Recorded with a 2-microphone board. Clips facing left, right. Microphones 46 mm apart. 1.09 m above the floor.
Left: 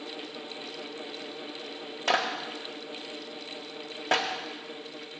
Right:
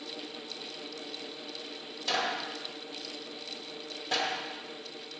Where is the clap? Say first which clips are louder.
Left 4 dB; 55° left (ahead or behind), 1.4 m.